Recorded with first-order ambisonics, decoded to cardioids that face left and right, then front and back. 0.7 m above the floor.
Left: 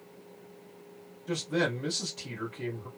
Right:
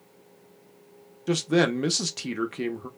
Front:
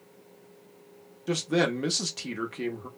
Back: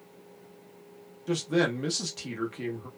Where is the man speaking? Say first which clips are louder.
Right 7 dB, front 1 dB; 75° right, 0.7 m.